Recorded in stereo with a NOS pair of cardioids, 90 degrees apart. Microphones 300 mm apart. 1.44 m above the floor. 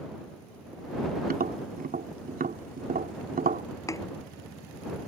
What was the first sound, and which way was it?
Tapping, 30° right.